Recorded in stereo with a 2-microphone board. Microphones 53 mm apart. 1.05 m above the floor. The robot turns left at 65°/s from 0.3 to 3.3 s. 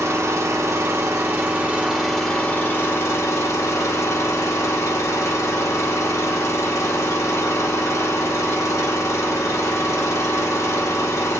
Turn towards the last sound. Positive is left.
turn(degrees=100)